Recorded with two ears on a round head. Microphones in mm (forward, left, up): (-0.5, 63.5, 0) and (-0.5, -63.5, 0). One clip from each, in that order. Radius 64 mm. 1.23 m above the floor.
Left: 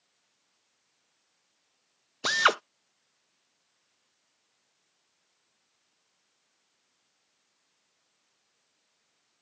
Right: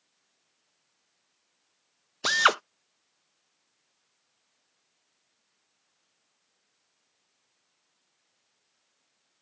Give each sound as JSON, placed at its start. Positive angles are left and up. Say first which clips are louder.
{"t": 2.2, "sound": "a drill", "louder": "right 2 dB", "side_deg": -10}